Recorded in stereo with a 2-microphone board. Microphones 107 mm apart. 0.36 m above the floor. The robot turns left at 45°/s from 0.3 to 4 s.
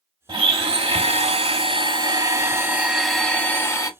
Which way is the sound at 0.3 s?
55° right.